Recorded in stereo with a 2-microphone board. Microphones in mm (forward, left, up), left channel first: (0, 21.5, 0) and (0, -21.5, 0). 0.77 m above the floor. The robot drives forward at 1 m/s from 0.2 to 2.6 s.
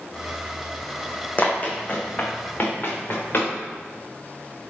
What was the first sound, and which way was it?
Running footsteps, 35° left (ahead or behind).